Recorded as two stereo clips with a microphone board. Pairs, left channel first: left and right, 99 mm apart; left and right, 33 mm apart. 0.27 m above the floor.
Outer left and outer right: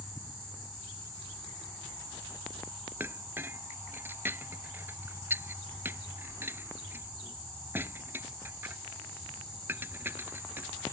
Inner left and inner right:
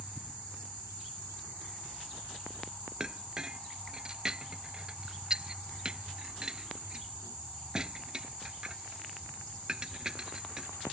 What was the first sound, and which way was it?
A clink, 20° right (ahead or behind).